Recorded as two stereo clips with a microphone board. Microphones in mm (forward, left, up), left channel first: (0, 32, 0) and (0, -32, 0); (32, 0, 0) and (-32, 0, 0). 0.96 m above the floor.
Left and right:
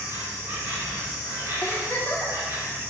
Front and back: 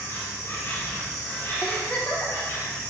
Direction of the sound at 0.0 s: 40° right.